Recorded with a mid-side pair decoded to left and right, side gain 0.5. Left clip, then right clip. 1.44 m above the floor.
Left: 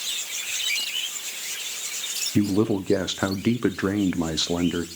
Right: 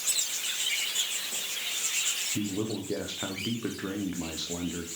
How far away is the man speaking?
About 0.8 m.